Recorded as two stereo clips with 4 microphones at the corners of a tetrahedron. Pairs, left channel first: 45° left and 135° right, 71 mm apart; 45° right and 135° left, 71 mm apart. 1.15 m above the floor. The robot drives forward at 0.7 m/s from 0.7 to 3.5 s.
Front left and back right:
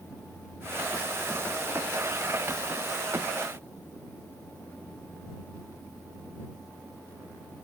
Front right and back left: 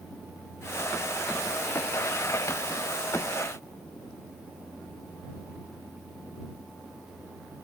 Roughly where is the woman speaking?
I don't hear a woman speaking.